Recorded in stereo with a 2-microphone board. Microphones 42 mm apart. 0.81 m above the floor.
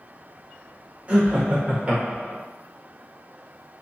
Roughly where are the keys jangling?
I don't hear keys jangling.